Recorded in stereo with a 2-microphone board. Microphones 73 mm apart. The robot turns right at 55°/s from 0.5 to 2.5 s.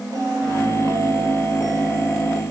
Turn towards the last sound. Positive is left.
turn(degrees=35)